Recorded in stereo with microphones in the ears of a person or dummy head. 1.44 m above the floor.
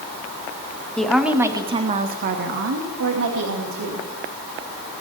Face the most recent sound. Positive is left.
turn(degrees=-85)